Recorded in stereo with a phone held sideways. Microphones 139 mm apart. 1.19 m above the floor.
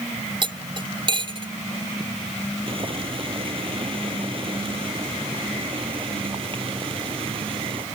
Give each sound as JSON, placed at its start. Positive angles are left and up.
{"t": 0.4, "sound": "cutlery clinking", "side_deg": -40}
{"t": 2.7, "sound": "boiling", "side_deg": -40}